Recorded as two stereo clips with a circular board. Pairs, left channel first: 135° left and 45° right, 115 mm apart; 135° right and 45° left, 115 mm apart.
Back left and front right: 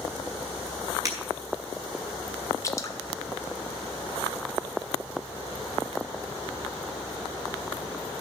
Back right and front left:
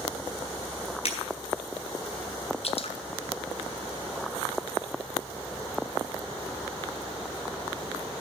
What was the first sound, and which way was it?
Breaking glass, 105° right.